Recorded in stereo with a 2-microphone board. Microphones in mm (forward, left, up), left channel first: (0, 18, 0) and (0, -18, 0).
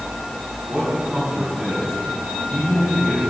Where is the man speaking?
40° right (ahead or behind), 3.5 m; by 3.2 s 15° right (ahead or behind), 2.5 m.